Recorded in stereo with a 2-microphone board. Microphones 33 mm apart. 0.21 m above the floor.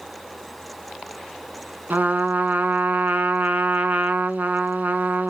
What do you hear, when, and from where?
1.9 s a trumpet: 60° right (ahead or behind), 1.0 m